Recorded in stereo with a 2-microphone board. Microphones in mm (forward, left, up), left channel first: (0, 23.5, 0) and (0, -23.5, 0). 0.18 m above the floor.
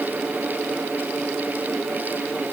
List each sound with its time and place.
Only background noise.